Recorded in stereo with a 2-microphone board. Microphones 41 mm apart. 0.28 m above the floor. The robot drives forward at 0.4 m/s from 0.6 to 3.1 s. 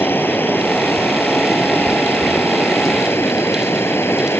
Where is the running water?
55° left (ahead or behind); by 4.4 s 65° left (ahead or behind).